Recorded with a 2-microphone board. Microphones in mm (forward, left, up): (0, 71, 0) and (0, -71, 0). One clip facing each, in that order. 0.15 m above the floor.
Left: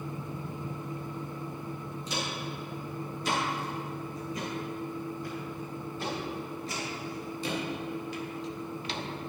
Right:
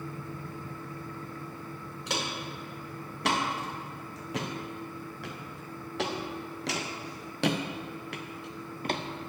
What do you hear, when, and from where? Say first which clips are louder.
2.1 s footsteps: right 1 dB; 70° right (ahead or behind), 4 m; by 9.0 s 50° right (ahead or behind), 1.4 m